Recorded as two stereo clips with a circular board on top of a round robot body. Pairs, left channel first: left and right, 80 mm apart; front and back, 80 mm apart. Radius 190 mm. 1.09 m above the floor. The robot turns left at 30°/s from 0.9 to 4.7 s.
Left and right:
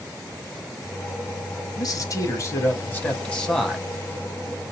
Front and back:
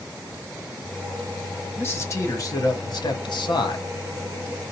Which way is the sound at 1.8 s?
60° left.